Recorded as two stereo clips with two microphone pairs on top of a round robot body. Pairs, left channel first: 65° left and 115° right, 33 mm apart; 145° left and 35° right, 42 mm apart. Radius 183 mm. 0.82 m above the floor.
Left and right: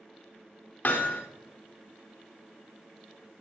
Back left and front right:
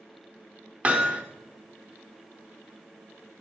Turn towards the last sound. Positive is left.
turn(degrees=25)